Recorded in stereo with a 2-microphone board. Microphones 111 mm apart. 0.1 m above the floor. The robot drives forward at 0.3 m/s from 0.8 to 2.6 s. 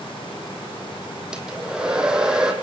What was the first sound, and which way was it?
A hair dryer, 5° right (ahead or behind).